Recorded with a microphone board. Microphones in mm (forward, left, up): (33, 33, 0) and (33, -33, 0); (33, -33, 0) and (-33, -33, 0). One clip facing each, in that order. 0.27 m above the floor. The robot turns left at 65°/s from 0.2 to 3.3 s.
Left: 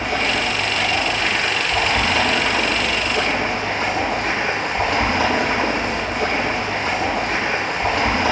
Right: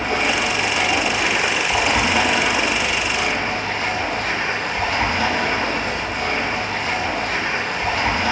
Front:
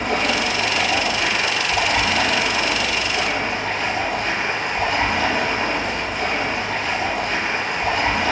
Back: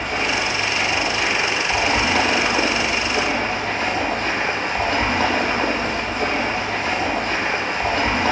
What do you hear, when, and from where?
0.0 s running water: 30° right, 3.5 m; by 8.3 s 125° left, 3.5 m